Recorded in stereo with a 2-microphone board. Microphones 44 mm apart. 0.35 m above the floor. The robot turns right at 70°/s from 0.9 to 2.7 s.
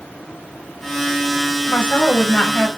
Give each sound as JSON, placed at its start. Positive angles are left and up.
{"t": 1.7, "sound": "a woman speaking", "azimuth_deg": 100, "distance_m": 2.0}